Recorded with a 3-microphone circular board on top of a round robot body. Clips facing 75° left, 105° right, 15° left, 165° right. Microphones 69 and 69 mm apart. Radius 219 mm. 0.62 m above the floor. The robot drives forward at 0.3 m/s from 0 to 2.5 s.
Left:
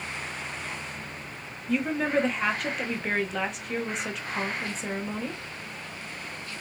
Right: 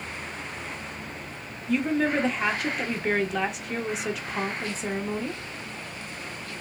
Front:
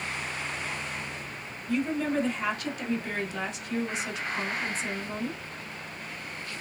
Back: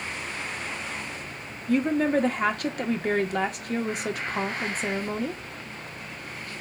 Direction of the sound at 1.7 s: 165° left.